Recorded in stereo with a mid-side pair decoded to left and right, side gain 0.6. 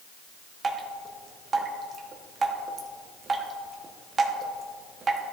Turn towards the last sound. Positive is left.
turn(degrees=-30)